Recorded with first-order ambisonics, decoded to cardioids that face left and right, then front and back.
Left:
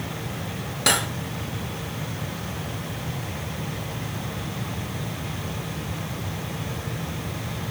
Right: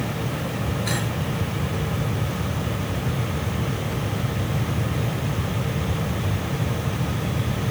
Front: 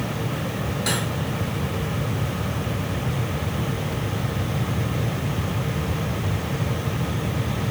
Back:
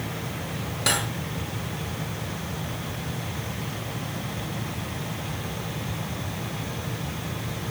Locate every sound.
0.9 s cutlery clinking: 105° left, 1.7 m